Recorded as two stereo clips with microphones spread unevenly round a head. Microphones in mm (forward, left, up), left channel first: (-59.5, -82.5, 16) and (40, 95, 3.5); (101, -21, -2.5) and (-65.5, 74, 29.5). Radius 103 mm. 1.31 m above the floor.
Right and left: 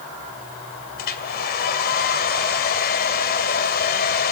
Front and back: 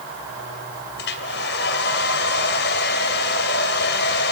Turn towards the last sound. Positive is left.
turn(degrees=-75)